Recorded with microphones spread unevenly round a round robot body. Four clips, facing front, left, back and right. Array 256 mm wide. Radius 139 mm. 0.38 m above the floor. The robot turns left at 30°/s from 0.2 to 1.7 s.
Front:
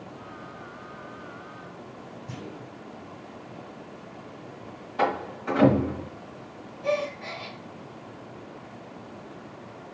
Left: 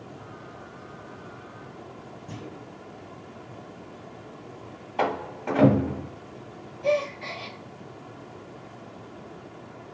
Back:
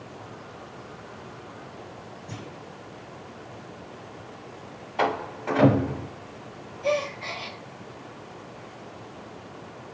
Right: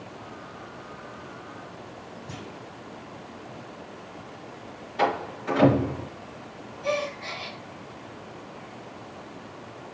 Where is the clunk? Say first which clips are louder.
Left 2 dB, front 1 dB; 70° left, 2.5 m.